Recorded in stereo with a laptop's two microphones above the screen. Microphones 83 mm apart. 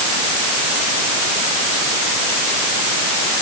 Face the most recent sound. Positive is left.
No sound to turn to.